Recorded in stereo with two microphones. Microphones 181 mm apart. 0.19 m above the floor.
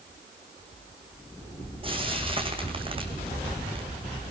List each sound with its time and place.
1.8 s frying: 30° right (ahead or behind), 3.5 m